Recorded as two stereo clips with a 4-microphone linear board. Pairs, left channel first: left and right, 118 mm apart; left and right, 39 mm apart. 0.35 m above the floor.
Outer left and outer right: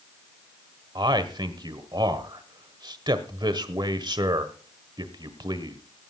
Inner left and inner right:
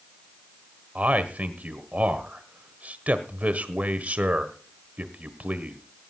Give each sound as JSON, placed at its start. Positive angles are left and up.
{"t": 0.9, "sound": "a man speaking", "side_deg": -45, "distance_m": 1.3}